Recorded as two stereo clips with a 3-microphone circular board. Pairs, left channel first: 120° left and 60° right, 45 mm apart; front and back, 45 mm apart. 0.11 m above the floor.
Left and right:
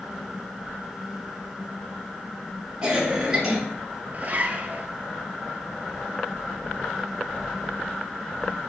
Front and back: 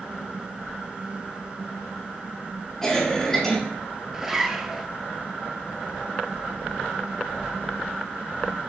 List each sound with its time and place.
2.8 s a cough: 40° right, 1.4 m
4.1 s a zipper: 100° right, 0.6 m